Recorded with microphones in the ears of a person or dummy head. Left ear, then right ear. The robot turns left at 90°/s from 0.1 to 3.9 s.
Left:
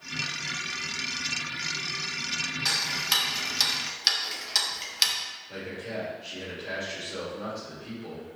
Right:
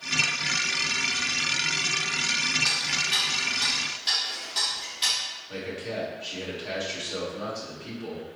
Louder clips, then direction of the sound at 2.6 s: Right 1 dB; 5° left (ahead or behind).